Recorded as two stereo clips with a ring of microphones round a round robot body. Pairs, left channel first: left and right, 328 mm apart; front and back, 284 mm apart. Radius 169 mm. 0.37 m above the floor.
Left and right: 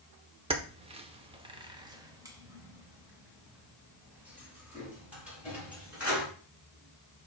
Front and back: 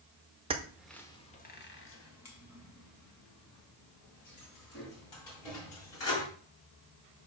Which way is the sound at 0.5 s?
140° right.